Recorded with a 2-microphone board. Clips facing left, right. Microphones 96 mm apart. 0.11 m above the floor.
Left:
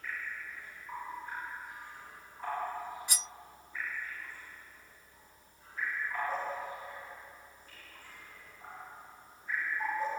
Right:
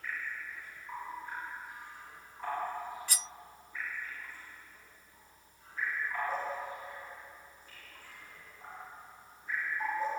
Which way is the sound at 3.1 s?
20° left (ahead or behind).